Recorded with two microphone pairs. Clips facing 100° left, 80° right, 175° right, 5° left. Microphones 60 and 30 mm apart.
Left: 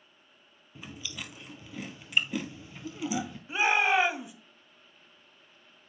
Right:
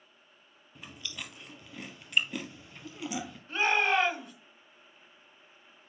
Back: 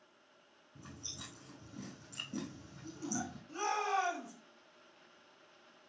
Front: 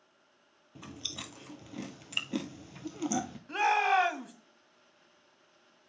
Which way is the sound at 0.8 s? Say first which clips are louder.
Left 2 dB, front 8 dB; 10° left.